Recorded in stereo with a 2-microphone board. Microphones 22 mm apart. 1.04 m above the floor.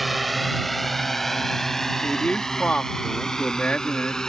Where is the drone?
Centre (ahead or behind); by 4.3 s 30° left (ahead or behind).